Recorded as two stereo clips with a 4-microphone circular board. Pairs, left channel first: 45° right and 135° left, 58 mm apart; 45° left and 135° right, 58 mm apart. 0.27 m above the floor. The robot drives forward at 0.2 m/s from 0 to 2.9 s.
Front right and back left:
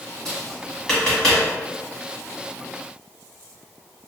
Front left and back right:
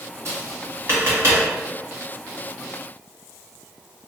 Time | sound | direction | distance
0.2 | tapping | 115° right | 1.8 m